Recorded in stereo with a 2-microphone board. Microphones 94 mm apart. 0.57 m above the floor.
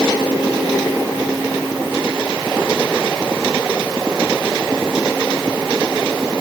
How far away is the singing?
No singing in this recording.